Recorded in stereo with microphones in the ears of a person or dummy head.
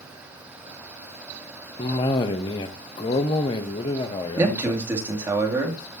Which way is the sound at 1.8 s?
25° left (ahead or behind).